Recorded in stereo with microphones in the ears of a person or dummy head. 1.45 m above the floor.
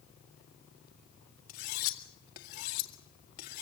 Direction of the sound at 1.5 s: 50° left (ahead or behind).